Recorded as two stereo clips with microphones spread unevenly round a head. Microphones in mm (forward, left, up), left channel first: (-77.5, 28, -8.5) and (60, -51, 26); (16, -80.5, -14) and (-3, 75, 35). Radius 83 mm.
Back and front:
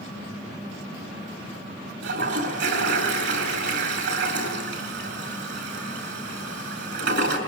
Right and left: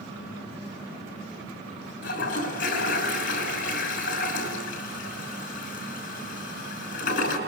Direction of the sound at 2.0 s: 45° right.